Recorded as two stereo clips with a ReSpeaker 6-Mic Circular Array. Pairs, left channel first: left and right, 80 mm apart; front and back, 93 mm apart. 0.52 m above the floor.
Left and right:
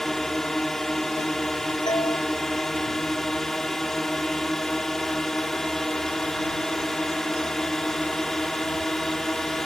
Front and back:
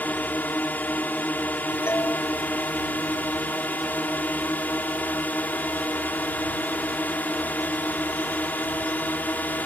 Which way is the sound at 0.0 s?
15° left.